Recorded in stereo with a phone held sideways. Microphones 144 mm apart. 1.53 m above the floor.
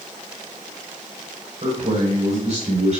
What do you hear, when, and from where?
1.6 s a man speaking: 50° right (ahead or behind), 5.5 m